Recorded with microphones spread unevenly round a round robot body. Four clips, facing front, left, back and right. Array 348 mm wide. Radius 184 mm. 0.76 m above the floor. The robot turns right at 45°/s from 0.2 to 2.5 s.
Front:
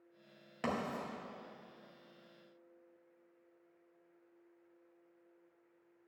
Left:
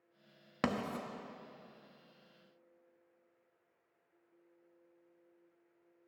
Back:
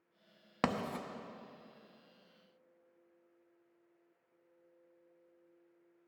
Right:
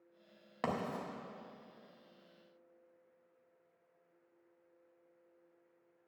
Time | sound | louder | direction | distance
0.6 | writing | left 1 dB, back 2 dB | 130° left | 0.8 m